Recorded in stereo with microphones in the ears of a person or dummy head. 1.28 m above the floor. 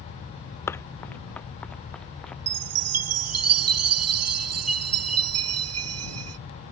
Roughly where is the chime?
Right.